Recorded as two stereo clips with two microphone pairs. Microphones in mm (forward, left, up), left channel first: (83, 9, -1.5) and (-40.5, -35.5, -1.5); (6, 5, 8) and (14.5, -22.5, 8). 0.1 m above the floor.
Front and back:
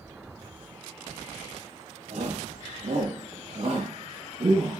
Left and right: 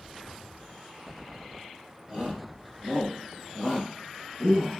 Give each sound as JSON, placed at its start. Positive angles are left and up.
{"t": 2.1, "sound": "a shout", "azimuth_deg": -130, "distance_m": 4.0}